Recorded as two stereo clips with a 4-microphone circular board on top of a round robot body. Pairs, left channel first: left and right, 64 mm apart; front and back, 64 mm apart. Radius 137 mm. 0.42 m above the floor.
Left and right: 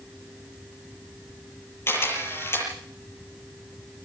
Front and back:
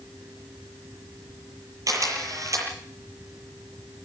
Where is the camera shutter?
145° left, 8.5 m.